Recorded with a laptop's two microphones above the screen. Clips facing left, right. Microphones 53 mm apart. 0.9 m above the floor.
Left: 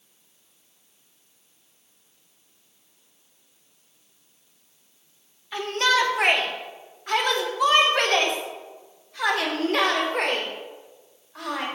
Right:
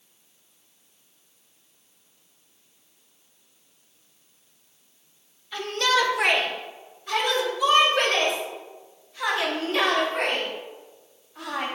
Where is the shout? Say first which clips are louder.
Left 1 dB; 30° left (ahead or behind), 1.8 m; by 11.7 s 80° left, 3.5 m.